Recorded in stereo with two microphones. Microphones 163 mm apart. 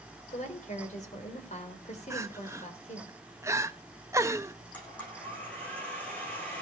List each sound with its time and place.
0.3 s a woman speaking: 50° left (ahead or behind), 3.5 m
2.1 s crying: 15° right (ahead or behind), 0.8 m
4.7 s a blender: 10° left (ahead or behind), 10 m